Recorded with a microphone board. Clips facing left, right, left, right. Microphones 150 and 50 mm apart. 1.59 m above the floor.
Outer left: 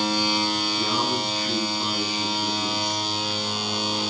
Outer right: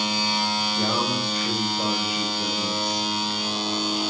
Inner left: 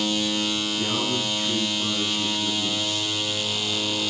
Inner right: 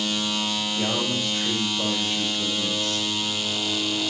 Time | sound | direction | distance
0.8 | a man speaking | 70° right (ahead or behind) | 8 m